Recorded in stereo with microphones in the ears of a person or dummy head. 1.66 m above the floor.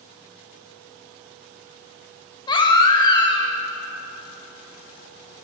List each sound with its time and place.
2.5 s a baby crying: 20° left (ahead or behind), 0.7 m